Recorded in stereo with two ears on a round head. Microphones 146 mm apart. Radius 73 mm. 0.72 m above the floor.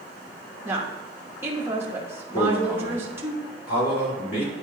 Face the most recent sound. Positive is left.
turn(degrees=65)  # may be behind; listen again after turning